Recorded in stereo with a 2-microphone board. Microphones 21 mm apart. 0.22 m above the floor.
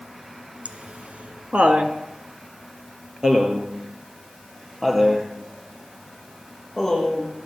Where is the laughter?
65° right (ahead or behind), 3 m; by 7.3 s centre (ahead or behind), 9.5 m.